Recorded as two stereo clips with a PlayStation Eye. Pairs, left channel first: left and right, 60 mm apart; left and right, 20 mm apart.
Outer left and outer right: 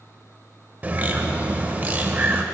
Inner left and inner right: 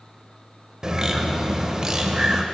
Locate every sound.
0.8 s a bird: 30° right (ahead or behind), 0.6 m